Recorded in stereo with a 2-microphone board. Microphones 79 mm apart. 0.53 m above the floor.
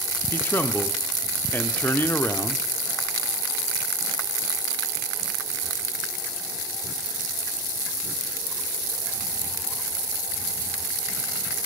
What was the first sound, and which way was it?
A man speaking, 25° left (ahead or behind).